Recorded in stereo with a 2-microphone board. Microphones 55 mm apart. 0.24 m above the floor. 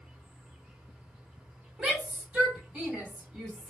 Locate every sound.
0.0 s an insect: 15° right (ahead or behind), 1.0 m
1.8 s a shout: 15° right (ahead or behind), 1.5 m